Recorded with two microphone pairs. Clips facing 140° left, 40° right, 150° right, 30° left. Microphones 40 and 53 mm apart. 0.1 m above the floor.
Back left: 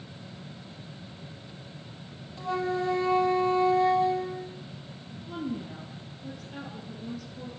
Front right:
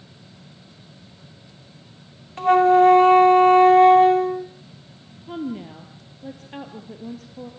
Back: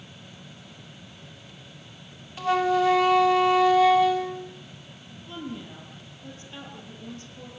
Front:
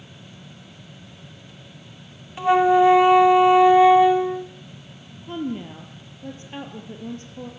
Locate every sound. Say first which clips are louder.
2.4 s a flute: front right 15 dB, front 7 dB; 35° right, 0.7 m
5.3 s a woman speaking: front right 5 dB, front 8 dB; 15° right, 2 m